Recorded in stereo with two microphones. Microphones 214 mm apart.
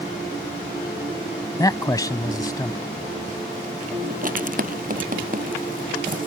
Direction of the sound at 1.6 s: 20° left (ahead or behind).